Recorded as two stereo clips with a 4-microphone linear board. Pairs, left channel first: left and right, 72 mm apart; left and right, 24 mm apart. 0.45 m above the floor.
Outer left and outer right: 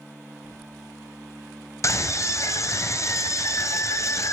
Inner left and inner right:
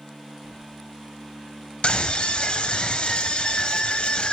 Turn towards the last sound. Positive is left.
turn(degrees=45)  # may be behind; listen again after turning